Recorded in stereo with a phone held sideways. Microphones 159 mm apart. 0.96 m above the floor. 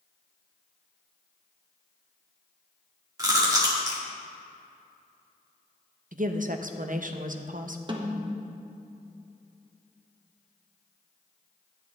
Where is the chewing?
25° right (ahead or behind), 1.9 m.